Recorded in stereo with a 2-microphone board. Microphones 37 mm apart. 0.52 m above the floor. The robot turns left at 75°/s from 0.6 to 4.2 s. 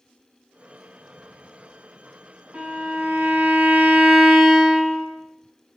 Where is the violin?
45° right, 0.6 m; by 5.0 s 170° right, 0.6 m.